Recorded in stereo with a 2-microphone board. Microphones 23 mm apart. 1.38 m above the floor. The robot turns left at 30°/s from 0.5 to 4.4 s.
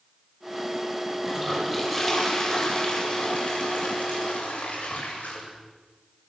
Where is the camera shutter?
I don't hear a camera shutter.